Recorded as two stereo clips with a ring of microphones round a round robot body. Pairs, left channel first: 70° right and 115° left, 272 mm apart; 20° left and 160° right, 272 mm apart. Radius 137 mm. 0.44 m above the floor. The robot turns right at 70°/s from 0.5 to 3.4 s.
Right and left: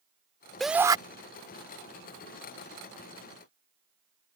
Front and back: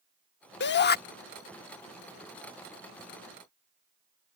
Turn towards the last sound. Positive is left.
turn(degrees=-145)